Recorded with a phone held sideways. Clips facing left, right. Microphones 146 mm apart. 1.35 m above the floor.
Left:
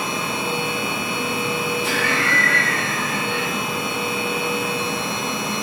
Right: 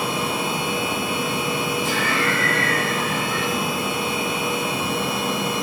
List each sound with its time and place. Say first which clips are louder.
0.0 s a machine running: right 1 dB; 10° right (ahead or behind), 0.8 m
1.8 s laughter: even; 75° left (ahead or behind), 1.0 m